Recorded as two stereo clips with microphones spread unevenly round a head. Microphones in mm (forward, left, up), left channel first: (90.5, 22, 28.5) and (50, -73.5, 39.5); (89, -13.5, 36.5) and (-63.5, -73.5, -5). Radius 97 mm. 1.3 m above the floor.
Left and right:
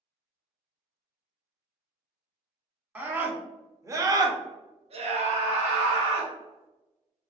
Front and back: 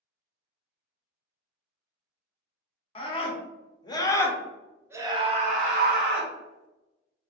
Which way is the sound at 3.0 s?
35° right.